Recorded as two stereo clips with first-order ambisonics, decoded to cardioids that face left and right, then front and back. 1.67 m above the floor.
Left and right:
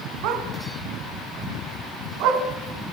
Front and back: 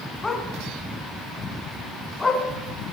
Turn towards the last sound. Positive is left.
turn(degrees=-80)